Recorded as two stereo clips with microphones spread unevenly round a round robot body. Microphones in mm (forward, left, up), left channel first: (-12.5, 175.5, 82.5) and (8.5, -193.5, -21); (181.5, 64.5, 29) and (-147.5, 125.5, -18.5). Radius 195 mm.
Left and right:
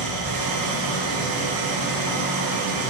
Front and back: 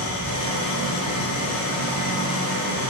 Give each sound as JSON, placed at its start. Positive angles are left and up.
{"t": 0.0, "sound": "an engine running", "azimuth_deg": -55, "distance_m": 4.5}